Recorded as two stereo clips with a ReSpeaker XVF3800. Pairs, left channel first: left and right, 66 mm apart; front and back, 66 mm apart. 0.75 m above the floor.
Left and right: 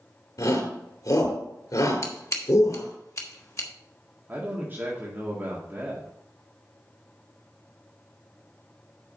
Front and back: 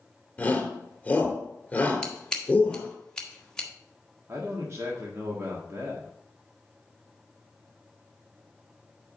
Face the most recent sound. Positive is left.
turn(degrees=-140)